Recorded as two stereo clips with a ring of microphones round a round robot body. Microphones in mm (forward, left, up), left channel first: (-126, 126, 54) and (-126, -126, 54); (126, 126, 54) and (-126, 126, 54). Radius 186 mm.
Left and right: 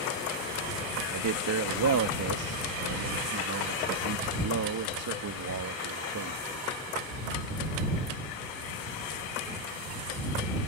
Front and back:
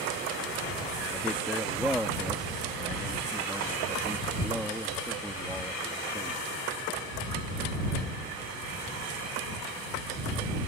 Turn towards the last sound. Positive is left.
turn(degrees=-90)